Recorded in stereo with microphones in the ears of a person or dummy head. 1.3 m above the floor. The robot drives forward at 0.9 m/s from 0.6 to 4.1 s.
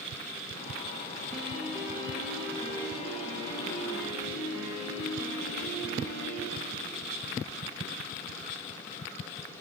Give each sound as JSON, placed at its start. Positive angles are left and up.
{"t": 1.3, "sound": "a piano", "side_deg": -25, "distance_m": 7.0}